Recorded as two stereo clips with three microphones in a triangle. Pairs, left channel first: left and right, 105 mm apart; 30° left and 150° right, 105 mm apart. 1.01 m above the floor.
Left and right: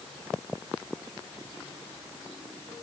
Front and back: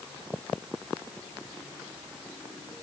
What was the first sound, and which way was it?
Only background noise.